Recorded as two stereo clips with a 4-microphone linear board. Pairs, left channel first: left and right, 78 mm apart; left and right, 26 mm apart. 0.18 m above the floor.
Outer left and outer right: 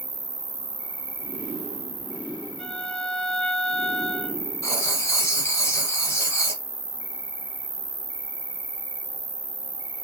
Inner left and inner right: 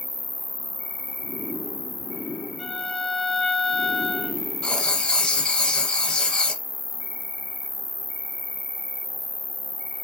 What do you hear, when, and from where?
0.0 s an insect: 90° right, 1.0 m
2.6 s a violin: 5° left (ahead or behind), 0.7 m
4.6 s writing: 40° left (ahead or behind), 0.9 m